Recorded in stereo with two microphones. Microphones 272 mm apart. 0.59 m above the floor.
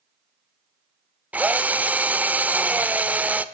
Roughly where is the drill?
Centre.